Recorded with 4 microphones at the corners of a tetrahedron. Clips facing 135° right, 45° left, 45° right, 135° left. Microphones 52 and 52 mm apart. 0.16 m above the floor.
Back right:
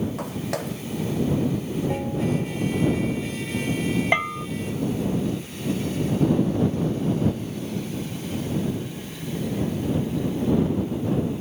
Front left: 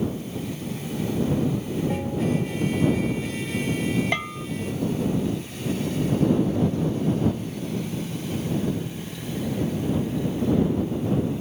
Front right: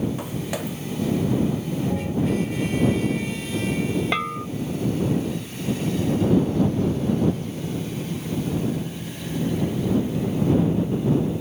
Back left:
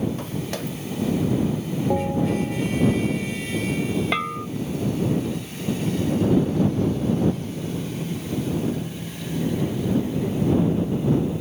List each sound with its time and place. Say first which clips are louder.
0.2 s footsteps: back right 3 dB, front right 1 dB; 125° right
1.9 s a bell: even, back left 3 dB; 140° left
4.1 s a bell: back right 5 dB, even; 135° right